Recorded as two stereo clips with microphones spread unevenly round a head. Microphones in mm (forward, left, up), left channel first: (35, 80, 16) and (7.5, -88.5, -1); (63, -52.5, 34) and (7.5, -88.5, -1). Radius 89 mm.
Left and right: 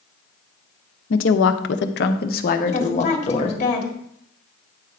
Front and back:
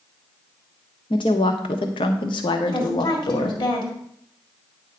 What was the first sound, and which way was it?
A woman speaking, 90° left.